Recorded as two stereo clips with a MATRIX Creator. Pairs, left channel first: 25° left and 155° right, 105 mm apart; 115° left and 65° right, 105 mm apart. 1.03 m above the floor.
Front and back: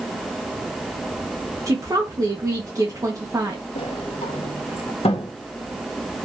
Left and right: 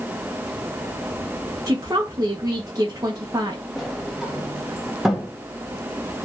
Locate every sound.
1.7 s a woman speaking: 110° right, 1.1 m
3.8 s a sliding door: 20° left, 1.2 m